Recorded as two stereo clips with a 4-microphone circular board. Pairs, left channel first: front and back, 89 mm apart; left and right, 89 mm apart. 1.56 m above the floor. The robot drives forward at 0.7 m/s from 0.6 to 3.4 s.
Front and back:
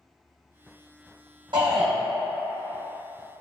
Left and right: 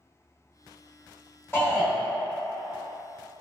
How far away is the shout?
About 1.7 m.